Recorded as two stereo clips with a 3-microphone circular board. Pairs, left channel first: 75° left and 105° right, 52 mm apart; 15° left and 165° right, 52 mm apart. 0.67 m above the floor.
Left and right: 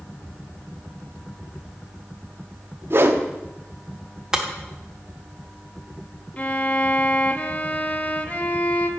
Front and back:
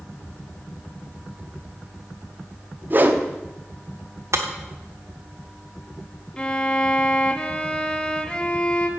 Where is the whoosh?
130° right, 0.7 m.